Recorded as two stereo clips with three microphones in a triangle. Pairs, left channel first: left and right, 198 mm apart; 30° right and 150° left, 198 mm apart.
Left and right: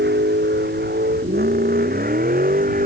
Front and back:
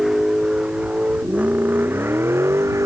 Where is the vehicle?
120° right; by 2.9 s 135° right.